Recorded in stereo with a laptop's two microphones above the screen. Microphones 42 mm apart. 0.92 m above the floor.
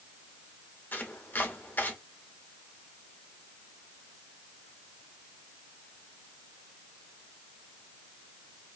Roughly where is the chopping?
Left.